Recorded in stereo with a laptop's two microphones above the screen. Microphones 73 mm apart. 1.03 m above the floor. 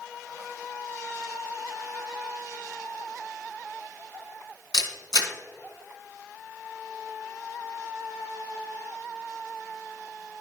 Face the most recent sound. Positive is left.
turn(degrees=75)  # may be behind; listen again after turning